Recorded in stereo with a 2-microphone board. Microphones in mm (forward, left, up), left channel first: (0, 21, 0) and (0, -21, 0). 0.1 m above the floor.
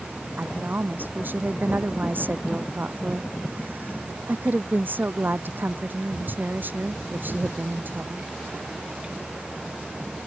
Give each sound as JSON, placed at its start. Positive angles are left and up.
{"t": 0.4, "sound": "a woman speaking", "side_deg": -50}